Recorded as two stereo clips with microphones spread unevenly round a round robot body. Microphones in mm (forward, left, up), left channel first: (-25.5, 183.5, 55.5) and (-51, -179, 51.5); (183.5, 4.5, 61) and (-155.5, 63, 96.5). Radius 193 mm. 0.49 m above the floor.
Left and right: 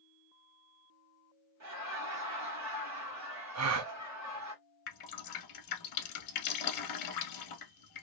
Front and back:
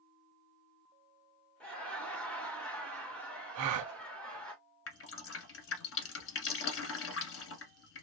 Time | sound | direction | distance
1.6 | laughter | 90° right | 1.8 m
3.5 | a gasp | 145° right | 0.6 m
4.9 | dripping | 45° left | 1.0 m